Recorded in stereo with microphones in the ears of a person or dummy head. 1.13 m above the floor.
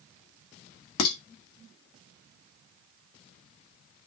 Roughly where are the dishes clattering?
Left.